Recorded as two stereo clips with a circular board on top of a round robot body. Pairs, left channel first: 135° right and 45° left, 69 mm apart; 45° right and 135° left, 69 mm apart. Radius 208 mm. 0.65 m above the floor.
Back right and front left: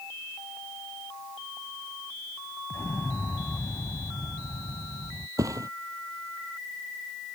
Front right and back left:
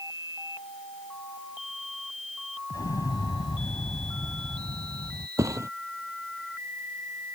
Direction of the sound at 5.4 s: 85° left.